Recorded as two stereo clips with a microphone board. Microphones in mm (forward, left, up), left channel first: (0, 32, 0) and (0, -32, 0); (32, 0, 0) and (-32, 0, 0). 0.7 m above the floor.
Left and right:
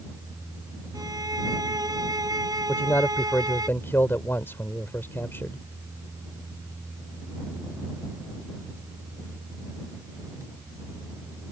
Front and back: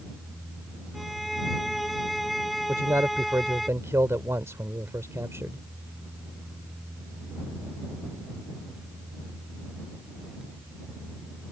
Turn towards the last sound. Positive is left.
turn(degrees=140)